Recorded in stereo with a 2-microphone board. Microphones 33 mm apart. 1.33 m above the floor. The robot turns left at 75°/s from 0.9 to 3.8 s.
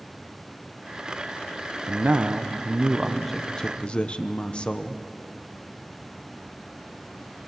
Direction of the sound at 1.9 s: 70° right.